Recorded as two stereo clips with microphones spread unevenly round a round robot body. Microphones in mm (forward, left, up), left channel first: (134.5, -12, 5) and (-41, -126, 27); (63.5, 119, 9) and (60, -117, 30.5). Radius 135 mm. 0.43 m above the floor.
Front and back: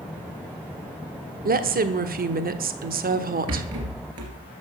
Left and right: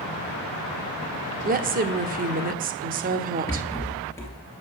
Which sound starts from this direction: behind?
A rattle, at 3.5 s.